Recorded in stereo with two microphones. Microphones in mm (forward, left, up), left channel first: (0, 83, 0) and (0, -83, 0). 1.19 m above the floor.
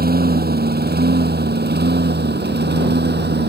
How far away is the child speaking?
No child speaking in this recording.